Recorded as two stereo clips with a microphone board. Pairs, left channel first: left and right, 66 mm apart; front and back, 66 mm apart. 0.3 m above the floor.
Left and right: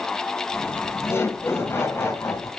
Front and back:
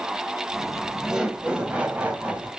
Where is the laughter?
90° left, 1.5 m; by 2.5 s 125° left, 2.0 m.